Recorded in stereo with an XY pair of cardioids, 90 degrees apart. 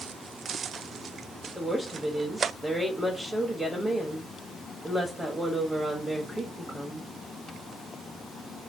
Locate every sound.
1.6 s a woman speaking: 15° right, 1.2 m